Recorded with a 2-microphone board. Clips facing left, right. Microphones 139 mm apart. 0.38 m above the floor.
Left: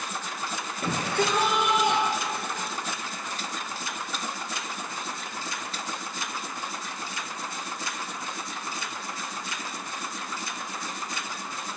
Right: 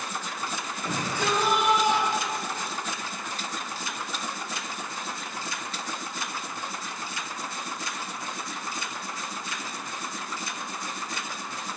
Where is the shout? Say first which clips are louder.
Left 3 dB; 70° left (ahead or behind), 9 m; by 2.8 s 65° left (ahead or behind), 6 m.